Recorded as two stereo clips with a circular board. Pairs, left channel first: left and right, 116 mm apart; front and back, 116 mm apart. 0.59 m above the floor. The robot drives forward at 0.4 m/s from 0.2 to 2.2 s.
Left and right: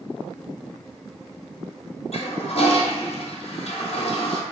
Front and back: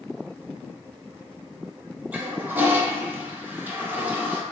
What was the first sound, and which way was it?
A toilet flushing, 105° left.